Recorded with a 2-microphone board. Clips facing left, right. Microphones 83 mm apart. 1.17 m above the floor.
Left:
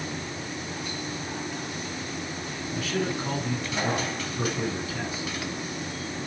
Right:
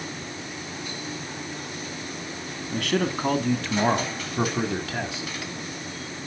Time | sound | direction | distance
2.7 | a man speaking | 65° right (ahead or behind) | 1.9 m